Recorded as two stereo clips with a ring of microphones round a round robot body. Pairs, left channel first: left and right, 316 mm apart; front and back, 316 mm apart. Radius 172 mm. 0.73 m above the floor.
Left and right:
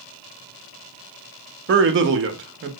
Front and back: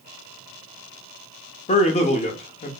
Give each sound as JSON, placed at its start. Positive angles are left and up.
{"t": 1.7, "sound": "a man speaking", "azimuth_deg": -60, "distance_m": 0.5}